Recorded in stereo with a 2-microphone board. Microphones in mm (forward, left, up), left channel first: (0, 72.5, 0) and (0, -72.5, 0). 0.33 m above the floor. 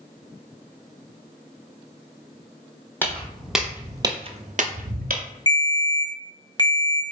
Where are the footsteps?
15° left (ahead or behind), 0.9 m; by 5.2 s 70° right (ahead or behind), 0.8 m.